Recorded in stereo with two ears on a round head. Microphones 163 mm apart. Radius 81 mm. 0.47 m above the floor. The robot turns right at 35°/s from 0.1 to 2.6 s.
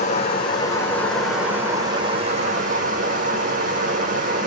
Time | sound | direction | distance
0.0 | running water | 140° left | 3 m